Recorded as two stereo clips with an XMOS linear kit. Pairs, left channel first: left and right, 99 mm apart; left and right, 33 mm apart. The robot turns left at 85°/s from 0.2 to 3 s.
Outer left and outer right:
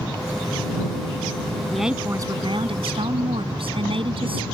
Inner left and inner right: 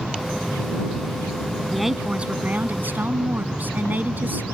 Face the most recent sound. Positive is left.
turn(degrees=-105)